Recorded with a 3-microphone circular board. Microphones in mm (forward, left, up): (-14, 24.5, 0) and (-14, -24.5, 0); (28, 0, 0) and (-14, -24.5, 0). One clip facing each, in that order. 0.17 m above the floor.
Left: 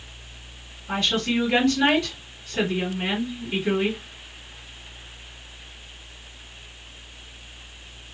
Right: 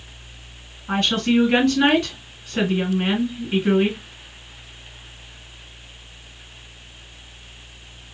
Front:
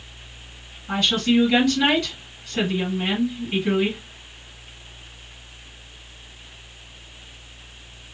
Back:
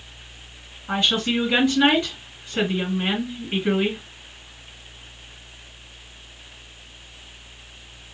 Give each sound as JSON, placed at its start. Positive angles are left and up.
{"t": 0.9, "sound": "a woman speaking", "azimuth_deg": -100, "distance_m": 1.9}